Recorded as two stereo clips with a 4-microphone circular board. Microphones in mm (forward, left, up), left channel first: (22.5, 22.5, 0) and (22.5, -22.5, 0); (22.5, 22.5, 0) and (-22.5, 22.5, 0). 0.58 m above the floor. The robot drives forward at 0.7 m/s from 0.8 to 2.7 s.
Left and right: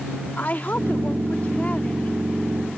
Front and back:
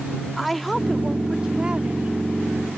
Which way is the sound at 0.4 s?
85° left.